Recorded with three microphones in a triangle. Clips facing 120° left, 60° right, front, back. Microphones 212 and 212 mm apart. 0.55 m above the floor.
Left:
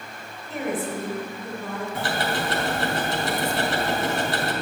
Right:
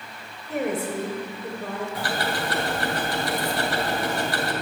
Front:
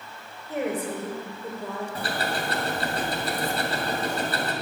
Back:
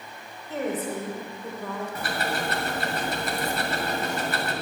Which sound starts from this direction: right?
A woman speaking, at 0.5 s.